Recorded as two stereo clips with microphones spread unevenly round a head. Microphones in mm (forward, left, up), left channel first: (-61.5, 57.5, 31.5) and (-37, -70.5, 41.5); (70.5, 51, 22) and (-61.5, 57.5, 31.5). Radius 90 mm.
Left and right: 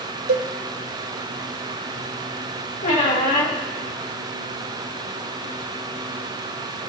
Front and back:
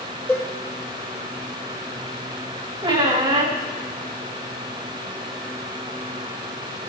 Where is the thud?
No thud in this recording.